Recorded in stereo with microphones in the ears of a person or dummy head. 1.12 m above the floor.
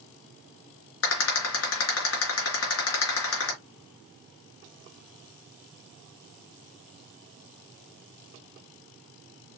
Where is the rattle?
75° left (ahead or behind), 3.5 m.